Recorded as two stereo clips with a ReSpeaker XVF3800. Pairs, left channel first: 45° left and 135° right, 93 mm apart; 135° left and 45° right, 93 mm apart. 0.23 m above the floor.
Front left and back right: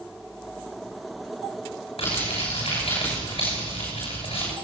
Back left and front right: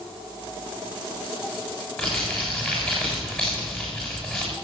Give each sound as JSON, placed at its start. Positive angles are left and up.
{"t": 2.0, "sound": "crumpling", "azimuth_deg": 45, "distance_m": 6.5}